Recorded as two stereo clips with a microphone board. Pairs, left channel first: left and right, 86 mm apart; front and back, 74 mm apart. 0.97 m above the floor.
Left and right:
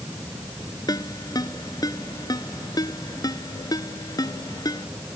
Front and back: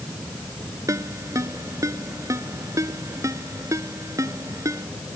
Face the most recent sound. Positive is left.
turn(degrees=135)